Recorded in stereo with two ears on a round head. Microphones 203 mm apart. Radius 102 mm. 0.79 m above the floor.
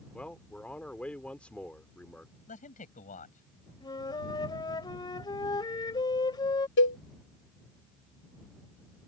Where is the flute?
20° left (ahead or behind).